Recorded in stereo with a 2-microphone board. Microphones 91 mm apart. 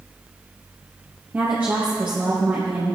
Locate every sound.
1.3 s a woman speaking: 20° right (ahead or behind), 4 m